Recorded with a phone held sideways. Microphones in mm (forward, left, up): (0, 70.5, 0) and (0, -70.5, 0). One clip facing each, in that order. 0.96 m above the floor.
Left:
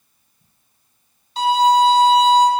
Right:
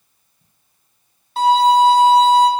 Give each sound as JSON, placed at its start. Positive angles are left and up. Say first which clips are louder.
{"t": 1.4, "sound": "a violin", "louder": "right 2 dB", "side_deg": -50, "distance_m": 1.0}